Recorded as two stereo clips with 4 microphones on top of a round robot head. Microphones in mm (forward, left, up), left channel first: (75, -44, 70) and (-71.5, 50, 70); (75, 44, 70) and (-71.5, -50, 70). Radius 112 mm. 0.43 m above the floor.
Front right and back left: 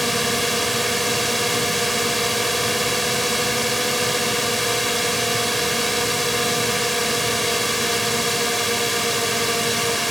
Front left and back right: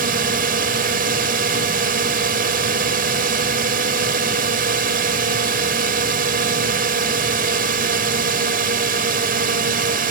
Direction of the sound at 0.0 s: 125° right.